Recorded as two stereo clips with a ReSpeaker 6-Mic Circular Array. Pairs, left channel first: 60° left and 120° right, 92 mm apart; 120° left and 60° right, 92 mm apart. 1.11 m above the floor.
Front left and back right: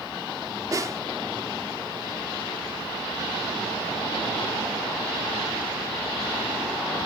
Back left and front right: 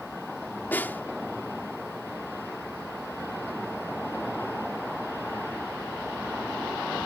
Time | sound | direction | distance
0.7 | a snare drum | 170° right | ?